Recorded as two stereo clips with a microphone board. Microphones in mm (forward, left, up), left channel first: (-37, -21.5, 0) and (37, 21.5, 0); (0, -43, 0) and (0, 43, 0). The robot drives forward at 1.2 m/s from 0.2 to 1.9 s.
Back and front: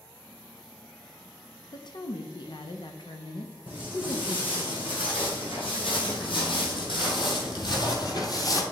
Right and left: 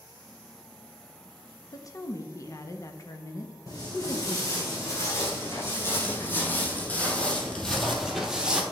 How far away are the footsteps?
About 4 m.